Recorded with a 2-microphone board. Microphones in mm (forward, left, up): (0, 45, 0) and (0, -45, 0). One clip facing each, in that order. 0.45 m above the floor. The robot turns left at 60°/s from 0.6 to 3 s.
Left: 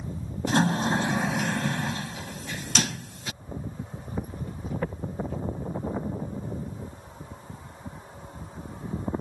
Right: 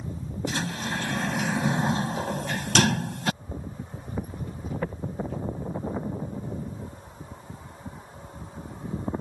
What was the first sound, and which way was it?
A sliding door, 50° left.